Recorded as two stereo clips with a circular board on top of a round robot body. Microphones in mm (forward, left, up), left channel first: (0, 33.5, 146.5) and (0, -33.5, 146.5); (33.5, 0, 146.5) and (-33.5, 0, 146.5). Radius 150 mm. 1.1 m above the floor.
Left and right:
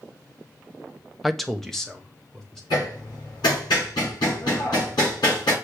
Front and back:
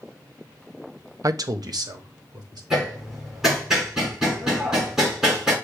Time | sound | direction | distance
1.2 | a man speaking | straight behind | 0.7 m
2.7 | hammering | 95° left | 4.5 m